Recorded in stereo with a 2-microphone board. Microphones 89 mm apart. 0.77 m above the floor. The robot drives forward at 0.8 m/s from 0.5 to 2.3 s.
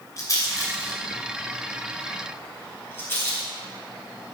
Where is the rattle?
40° left (ahead or behind), 2.5 m; by 3.5 s 25° left (ahead or behind), 3.5 m.